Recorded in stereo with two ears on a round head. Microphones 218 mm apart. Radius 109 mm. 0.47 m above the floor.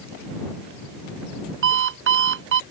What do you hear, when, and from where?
1.6 s an alarm clock: 55° right (ahead or behind)